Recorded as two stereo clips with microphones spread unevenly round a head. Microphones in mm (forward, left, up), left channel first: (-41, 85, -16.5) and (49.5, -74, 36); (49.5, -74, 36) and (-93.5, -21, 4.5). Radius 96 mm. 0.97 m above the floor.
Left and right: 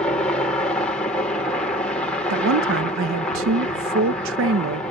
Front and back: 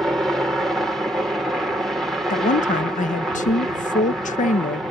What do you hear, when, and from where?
0.0 s a helicopter: 95° left
2.3 s a woman speaking: 55° right